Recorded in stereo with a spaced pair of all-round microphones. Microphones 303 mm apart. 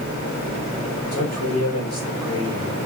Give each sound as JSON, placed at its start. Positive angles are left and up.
{"t": 1.1, "sound": "a man speaking", "side_deg": 55, "distance_m": 5.0}